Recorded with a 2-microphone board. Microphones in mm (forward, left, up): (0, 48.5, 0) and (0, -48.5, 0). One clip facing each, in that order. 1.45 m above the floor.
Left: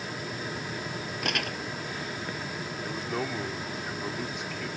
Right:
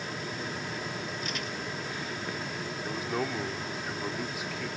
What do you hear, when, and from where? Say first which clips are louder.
1.2 s crumpling: left 4 dB; 65° left (ahead or behind)
2.8 s a man speaking: right 1 dB; 5° right (ahead or behind)